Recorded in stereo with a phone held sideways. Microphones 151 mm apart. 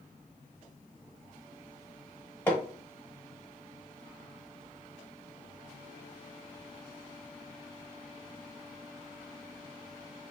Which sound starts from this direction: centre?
Hammering, at 2.5 s.